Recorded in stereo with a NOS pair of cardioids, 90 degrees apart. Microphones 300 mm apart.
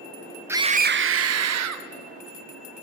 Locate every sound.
0.5 s a scream: 5° right, 0.7 m; by 1.9 s 60° right, 1.5 m